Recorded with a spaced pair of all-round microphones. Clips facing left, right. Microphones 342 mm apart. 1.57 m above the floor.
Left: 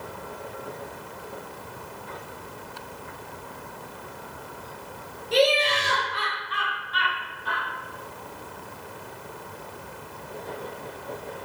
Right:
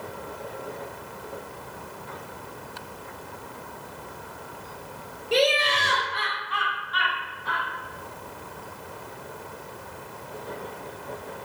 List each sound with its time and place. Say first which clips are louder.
5.3 s laughter: left 1 dB; 40° right (ahead or behind), 0.5 m; by 7.7 s 45° left (ahead or behind), 1.3 m